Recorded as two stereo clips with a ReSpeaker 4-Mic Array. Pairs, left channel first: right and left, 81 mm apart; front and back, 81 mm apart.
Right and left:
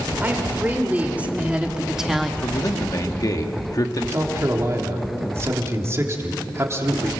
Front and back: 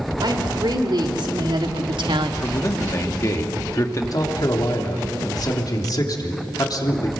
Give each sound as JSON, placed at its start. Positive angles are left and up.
{"t": 0.2, "sound": "a woman speaking", "azimuth_deg": 155, "distance_m": 4.0}
{"t": 2.4, "sound": "a man speaking", "azimuth_deg": -50, "distance_m": 1.9}
{"t": 4.1, "sound": "a man speaking", "azimuth_deg": 35, "distance_m": 3.5}